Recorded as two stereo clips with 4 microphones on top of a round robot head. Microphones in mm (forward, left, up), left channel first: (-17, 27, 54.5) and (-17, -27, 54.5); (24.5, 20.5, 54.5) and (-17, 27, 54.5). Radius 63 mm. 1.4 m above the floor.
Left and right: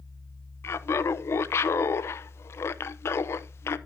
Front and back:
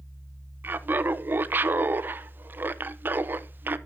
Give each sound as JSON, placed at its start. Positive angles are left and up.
{"t": 0.6, "sound": "laughter", "azimuth_deg": 130, "distance_m": 0.9}